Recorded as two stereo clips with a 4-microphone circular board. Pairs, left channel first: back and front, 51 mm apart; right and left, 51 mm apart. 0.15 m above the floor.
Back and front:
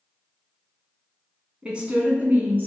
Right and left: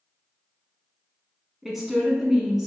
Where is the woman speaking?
10° left, 1.1 m; by 2.7 s 5° left, 1.4 m.